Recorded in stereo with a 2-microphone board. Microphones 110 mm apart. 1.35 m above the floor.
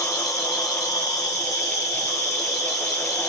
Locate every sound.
0.0 s an insect: 30° left (ahead or behind), 1.3 m